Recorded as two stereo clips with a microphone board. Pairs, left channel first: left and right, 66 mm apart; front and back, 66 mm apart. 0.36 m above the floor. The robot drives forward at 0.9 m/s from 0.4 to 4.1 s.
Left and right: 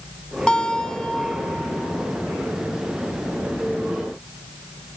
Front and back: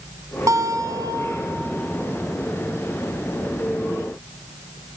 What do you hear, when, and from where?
0.5 s a guitar: 165° left, 1.2 m; by 1.7 s 170° left, 2 m